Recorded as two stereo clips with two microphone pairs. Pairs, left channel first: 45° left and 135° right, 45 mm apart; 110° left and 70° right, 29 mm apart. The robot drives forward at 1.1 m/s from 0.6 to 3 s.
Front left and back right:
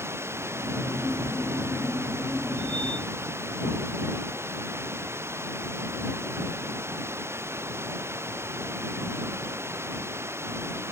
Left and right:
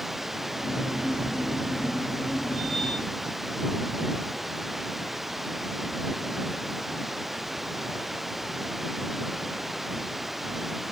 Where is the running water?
155° right; by 10.9 s 160° right.